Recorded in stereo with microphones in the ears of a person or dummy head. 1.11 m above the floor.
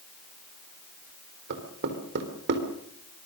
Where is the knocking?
65° right (ahead or behind), 3.5 m.